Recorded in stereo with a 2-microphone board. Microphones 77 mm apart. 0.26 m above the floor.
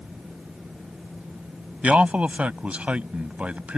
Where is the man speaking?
15° right (ahead or behind).